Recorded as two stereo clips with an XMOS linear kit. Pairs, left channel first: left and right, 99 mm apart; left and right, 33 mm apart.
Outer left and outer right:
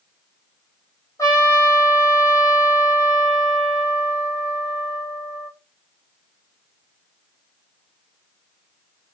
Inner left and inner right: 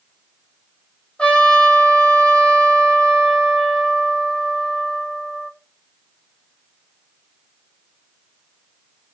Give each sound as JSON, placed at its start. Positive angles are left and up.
{"t": 1.2, "sound": "a trumpet", "side_deg": 35, "distance_m": 2.0}